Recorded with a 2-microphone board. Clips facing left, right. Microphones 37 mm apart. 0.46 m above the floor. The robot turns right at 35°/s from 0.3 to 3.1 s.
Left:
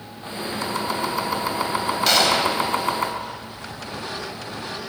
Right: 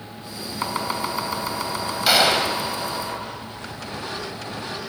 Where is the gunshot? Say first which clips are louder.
Right 1 dB; 10° right (ahead or behind), 2.5 m; by 2.6 s 25° right (ahead or behind), 2.5 m.